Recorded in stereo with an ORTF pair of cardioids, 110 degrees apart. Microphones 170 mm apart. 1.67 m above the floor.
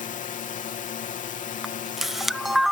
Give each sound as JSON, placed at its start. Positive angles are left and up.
{"t": 0.0, "sound": "a drone", "azimuth_deg": 50}
{"t": 1.6, "sound": "a camera shutter", "azimuth_deg": 0}